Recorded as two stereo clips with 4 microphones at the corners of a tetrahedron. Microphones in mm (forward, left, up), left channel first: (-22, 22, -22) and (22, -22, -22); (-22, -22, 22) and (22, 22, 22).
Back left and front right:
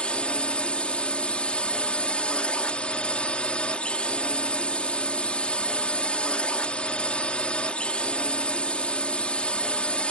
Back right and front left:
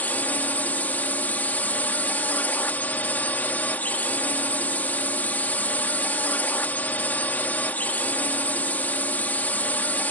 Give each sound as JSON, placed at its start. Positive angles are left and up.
{"t": 0.0, "sound": "a drone", "azimuth_deg": -170}